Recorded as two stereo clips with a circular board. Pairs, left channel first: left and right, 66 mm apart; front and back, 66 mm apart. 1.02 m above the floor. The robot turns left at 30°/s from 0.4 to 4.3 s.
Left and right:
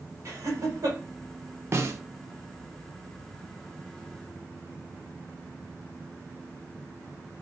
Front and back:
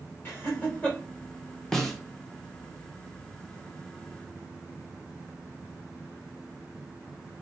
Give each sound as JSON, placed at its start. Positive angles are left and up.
{"t": 0.2, "sound": "laughter", "azimuth_deg": -55, "distance_m": 1.4}
{"t": 1.7, "sound": "a snare drum", "azimuth_deg": -80, "distance_m": 0.5}